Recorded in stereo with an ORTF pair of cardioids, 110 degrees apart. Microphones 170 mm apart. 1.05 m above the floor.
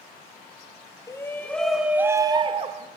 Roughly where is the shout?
Ahead.